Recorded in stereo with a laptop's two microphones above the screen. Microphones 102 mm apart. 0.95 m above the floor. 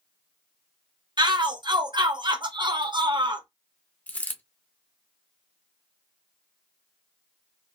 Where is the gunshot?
No gunshot in this recording.